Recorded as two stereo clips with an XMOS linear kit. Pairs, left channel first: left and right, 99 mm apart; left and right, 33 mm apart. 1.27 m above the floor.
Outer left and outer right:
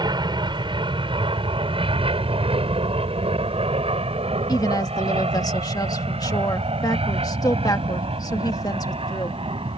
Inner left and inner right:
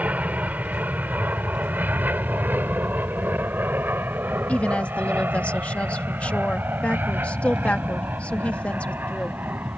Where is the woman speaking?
40° left (ahead or behind).